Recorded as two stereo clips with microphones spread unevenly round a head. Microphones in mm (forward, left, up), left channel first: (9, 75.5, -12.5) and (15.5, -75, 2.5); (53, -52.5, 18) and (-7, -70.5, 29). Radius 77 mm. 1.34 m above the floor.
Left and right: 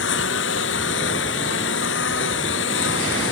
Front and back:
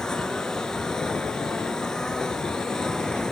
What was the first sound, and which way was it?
A lawn mower, 105° left.